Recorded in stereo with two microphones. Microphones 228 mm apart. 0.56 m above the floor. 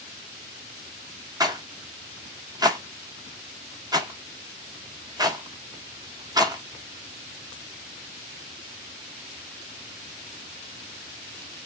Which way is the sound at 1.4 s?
20° right (ahead or behind).